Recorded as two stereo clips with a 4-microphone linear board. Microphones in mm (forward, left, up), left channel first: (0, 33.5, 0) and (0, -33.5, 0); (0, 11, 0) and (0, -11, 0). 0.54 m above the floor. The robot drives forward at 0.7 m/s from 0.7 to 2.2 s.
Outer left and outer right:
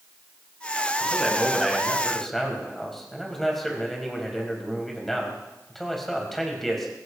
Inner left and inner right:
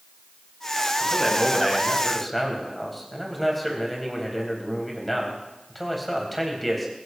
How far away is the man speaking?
About 4.5 m.